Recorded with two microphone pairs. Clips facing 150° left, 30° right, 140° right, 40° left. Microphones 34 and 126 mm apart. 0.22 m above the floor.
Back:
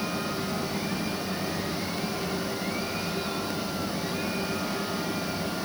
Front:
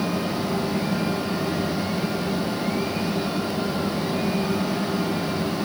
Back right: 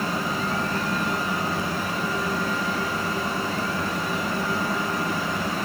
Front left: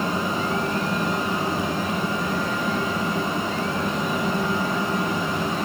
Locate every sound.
Only background noise.